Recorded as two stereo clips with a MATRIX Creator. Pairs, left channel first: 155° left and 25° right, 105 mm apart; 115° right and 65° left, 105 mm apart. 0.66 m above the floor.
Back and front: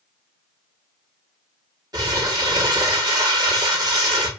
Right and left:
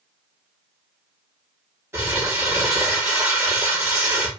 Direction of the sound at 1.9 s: 10° left.